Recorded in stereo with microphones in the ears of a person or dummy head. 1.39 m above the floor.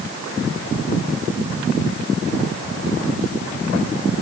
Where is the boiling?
No boiling in this recording.